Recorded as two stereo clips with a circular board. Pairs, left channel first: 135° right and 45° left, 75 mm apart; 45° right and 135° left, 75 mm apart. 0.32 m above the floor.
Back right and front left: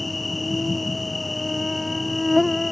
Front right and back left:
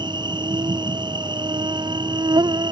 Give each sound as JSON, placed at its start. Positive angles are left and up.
{"t": 0.0, "sound": "an insect", "azimuth_deg": 135}